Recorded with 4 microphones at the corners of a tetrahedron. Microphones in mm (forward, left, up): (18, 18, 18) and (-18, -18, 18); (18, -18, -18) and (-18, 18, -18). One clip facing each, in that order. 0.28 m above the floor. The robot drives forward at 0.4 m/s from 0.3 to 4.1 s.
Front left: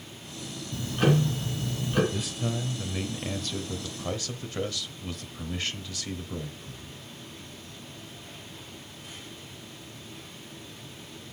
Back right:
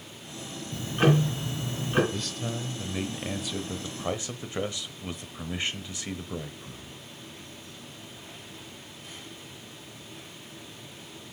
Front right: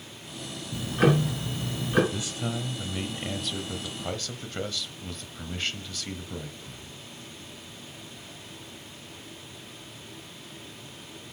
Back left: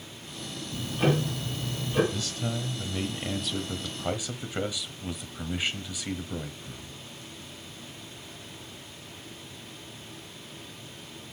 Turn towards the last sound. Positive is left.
turn(degrees=-170)